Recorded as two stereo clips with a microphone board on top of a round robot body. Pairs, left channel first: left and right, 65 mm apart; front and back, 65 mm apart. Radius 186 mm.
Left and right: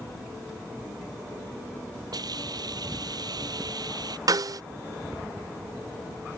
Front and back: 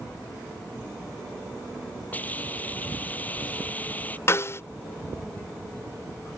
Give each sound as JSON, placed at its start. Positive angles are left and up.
{"t": 2.1, "sound": "a hiss", "azimuth_deg": -65}
{"t": 4.3, "sound": "a snare drum", "azimuth_deg": -55}